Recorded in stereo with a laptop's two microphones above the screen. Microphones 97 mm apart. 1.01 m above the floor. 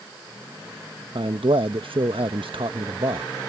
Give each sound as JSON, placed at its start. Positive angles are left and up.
{"t": 1.1, "sound": "a man speaking", "side_deg": -70}